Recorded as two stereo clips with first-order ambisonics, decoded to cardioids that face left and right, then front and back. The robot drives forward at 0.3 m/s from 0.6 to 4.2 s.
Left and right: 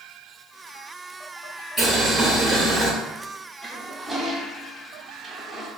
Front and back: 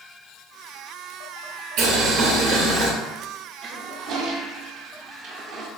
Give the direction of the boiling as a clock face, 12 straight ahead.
6 o'clock.